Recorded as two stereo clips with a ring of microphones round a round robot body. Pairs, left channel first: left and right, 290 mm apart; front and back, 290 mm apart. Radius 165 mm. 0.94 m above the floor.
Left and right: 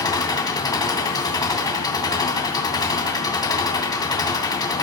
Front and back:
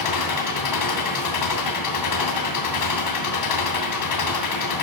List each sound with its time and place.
0.0 s an engine running: 15° left, 3 m